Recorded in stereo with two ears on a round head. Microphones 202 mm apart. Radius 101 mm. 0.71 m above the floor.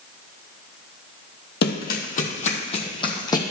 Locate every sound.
1.6 s running footsteps: 50° left (ahead or behind), 1.4 m; by 3.4 s 20° left (ahead or behind), 1.7 m